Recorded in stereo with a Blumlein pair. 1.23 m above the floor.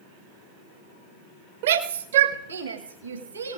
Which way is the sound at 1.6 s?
60° right.